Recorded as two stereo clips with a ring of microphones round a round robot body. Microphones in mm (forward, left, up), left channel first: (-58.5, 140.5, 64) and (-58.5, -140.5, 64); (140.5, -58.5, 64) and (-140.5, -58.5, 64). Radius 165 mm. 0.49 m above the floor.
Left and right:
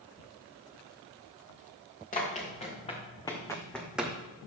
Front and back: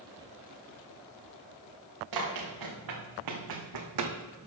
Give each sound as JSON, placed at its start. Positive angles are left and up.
{"t": 2.1, "sound": "running footsteps", "azimuth_deg": 155, "distance_m": 4.5}